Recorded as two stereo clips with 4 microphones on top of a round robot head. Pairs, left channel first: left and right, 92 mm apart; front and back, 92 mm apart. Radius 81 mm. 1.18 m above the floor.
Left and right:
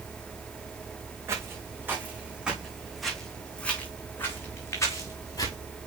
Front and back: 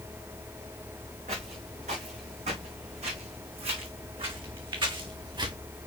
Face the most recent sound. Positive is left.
turn(degrees=140)